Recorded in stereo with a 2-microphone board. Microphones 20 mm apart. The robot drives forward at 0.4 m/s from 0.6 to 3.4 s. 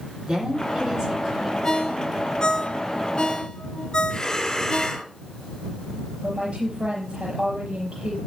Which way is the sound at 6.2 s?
65° right (ahead or behind).